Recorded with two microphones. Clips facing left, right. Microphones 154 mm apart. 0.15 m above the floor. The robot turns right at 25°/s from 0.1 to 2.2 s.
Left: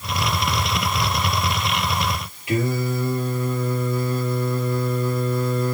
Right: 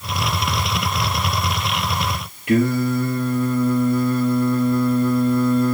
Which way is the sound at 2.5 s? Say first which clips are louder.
Right 5 dB; 65° right (ahead or behind).